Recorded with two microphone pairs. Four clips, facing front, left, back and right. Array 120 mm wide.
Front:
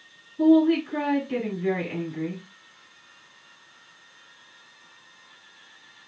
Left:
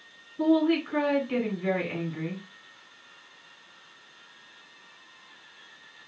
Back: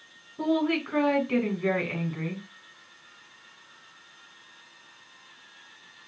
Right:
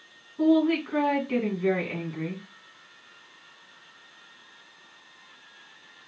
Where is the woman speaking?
160° right, 2.5 m.